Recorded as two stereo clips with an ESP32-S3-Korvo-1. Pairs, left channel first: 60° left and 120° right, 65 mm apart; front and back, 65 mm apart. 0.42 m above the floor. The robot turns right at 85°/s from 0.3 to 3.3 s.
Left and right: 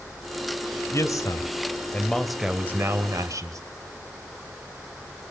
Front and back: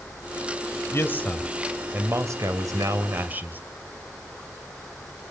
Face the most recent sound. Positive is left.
turn(degrees=-125)